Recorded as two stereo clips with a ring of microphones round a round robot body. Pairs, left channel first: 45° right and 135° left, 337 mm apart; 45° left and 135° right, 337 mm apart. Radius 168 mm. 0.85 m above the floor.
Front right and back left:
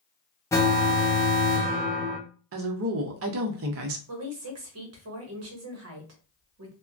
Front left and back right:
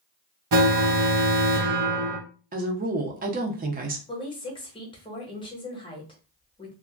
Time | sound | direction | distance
0.5 | an alarm | 125° right | 0.9 m
2.5 | a woman speaking | 170° left | 0.6 m
4.1 | a woman speaking | 115° left | 1.1 m